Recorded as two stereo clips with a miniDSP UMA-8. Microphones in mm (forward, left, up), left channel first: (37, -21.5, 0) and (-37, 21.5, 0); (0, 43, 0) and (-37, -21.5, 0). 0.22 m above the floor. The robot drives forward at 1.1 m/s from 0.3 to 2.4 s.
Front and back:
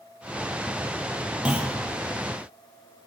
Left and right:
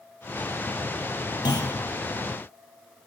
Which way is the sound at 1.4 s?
75° left.